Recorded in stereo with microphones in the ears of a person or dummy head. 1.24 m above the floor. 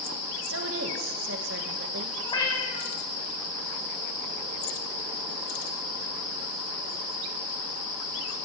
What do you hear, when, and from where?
0.5 s a woman speaking: 65° right (ahead or behind), 1.3 m
2.2 s a cat meowing: 25° left (ahead or behind), 3.5 m